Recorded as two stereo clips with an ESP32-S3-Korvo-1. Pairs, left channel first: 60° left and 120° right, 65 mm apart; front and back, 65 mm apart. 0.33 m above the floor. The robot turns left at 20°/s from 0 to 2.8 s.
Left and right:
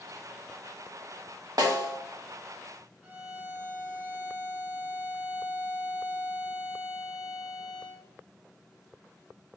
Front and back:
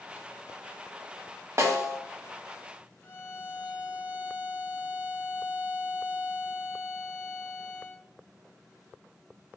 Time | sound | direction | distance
1.6 | a snare drum | 135° right | 0.5 m
3.0 | a violin | 55° right | 0.8 m